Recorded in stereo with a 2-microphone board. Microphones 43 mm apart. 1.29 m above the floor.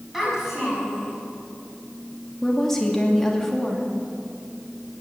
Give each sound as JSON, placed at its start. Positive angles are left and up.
{"t": 0.1, "sound": "a child speaking", "side_deg": -5, "distance_m": 6.0}
{"t": 2.4, "sound": "a woman speaking", "side_deg": 10, "distance_m": 2.5}